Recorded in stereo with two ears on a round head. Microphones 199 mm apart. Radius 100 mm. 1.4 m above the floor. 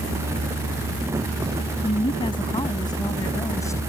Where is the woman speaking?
25° left (ahead or behind); by 3.8 s 15° left (ahead or behind).